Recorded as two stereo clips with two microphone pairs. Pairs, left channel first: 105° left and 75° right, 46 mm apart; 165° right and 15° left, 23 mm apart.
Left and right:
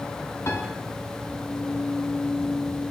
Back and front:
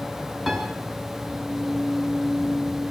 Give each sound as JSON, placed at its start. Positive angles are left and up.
{"t": 0.5, "sound": "a piano", "azimuth_deg": 100, "distance_m": 7.0}